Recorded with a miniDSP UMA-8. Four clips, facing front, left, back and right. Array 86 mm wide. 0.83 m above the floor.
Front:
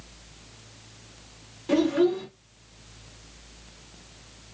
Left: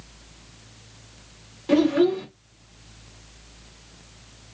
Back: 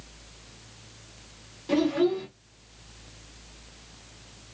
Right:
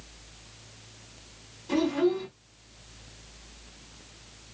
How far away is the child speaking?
About 1.1 m.